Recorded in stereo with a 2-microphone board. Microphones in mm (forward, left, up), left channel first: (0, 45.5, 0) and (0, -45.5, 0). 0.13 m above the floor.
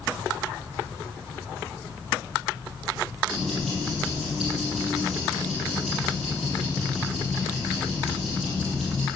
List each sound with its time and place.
3.3 s ticking: centre (ahead or behind), 3.5 m